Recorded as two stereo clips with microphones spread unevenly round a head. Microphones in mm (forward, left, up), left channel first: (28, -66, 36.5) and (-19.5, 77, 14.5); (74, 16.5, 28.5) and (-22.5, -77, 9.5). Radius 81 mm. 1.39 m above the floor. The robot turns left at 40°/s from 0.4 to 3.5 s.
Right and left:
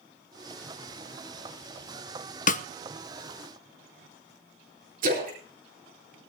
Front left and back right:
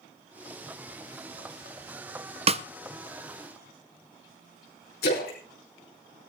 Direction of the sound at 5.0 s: 75° left.